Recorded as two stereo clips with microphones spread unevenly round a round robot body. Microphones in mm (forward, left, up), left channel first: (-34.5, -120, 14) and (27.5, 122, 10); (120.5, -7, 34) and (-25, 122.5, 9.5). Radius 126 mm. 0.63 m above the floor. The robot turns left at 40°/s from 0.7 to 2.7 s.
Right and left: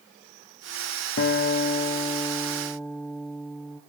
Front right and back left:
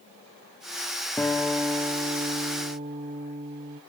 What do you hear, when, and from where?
1.2 s a guitar: 130° right, 0.6 m; by 3.8 s 170° left, 0.6 m